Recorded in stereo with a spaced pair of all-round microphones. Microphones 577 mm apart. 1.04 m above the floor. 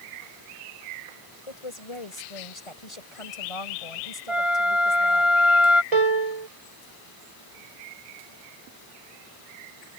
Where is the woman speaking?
65° left (ahead or behind).